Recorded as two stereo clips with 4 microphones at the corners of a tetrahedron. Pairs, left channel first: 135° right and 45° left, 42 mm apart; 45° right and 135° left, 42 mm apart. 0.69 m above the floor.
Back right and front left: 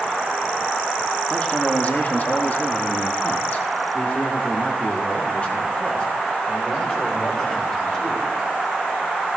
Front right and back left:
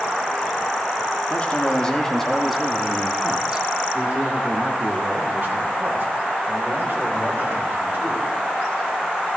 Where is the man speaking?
85° right, 1.4 m; by 8.3 s 165° left, 4 m.